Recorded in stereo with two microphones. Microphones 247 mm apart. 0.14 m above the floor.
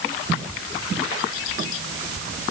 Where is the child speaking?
I don't hear a child speaking.